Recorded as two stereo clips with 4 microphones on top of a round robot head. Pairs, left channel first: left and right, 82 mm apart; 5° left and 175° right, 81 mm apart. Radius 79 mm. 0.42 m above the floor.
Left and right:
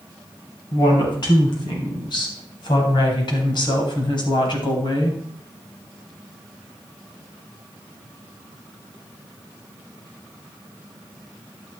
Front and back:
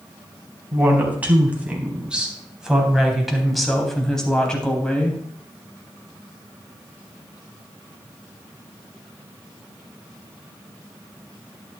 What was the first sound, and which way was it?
A woman speaking, 120° left.